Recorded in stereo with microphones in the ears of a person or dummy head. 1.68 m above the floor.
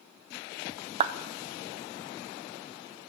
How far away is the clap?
About 0.7 m.